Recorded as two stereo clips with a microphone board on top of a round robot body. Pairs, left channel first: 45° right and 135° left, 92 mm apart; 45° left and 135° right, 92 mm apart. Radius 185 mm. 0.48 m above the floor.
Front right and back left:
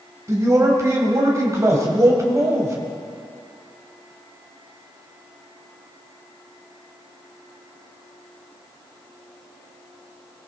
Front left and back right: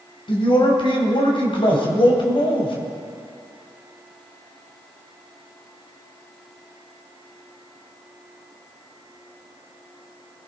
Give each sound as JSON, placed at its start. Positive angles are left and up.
{"t": 0.3, "sound": "a man speaking", "azimuth_deg": 75, "distance_m": 3.0}